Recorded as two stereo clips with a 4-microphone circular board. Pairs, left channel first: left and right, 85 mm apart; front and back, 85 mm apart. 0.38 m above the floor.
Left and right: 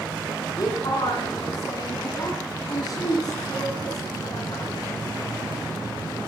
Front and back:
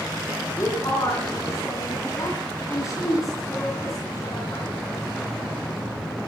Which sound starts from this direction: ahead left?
A woman speaking, at 0.6 s.